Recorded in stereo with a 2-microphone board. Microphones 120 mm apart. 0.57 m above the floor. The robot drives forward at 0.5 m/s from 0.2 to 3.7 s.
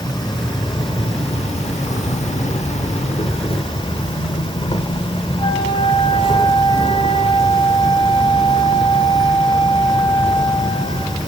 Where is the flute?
50° left (ahead or behind), 3 m.